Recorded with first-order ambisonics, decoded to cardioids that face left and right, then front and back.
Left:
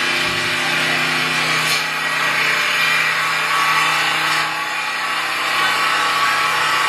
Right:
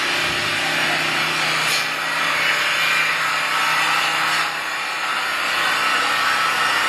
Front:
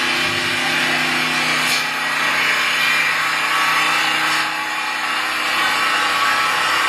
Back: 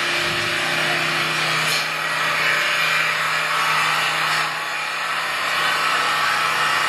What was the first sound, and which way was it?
An engine running, 50° left.